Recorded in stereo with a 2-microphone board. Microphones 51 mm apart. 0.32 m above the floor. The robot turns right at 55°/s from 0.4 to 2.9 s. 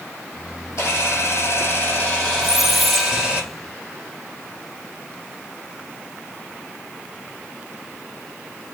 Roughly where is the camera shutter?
Left.